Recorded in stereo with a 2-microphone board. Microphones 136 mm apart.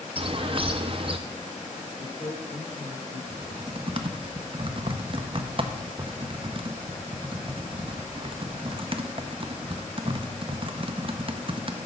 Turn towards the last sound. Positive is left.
turn(degrees=-40)  # may be behind; listen again after turning